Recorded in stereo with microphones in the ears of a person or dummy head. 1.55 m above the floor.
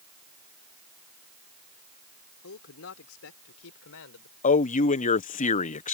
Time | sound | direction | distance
2.4 | a man speaking | 75° left (ahead or behind) | ?
4.4 | a man speaking | 40° left (ahead or behind) | ?